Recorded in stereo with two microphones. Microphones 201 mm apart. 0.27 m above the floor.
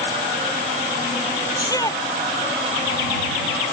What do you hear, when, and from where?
1.6 s a shout: 20° left (ahead or behind)